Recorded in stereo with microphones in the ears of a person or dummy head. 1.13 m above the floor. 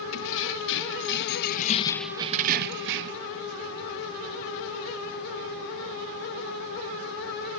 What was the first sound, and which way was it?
Keys jangling, 80° left.